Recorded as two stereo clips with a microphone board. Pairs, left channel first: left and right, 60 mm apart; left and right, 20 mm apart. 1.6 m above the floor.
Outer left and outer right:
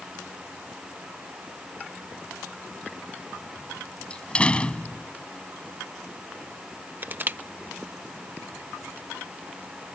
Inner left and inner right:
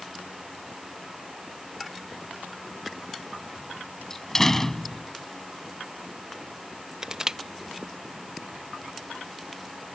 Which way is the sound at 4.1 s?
20° left (ahead or behind).